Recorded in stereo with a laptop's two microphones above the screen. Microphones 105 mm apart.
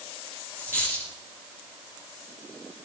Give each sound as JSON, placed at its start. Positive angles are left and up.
{"t": 0.6, "sound": "a dropped coin", "side_deg": -25, "distance_m": 6.5}